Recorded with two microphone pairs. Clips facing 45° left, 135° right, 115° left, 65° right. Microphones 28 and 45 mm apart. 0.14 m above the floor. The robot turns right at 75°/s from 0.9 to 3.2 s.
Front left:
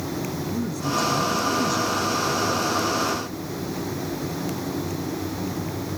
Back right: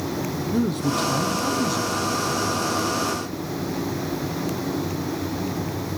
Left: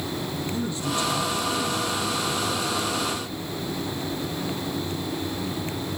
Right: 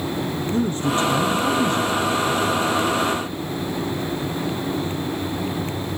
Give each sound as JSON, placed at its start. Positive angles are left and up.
{"t": 0.5, "sound": "a man speaking", "azimuth_deg": -110, "distance_m": 3.5}